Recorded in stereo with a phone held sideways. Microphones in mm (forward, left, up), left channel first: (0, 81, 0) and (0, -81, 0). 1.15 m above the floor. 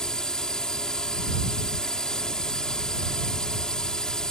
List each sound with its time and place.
0.0 s a drone: 5° left (ahead or behind)